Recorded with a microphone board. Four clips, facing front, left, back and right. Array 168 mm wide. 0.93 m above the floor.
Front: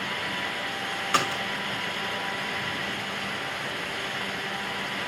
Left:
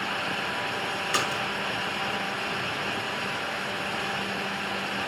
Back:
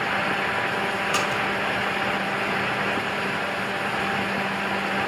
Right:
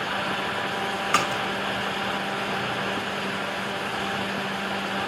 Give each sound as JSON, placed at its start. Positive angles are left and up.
{"t": 1.1, "sound": "a splash", "azimuth_deg": -75, "distance_m": 2.0}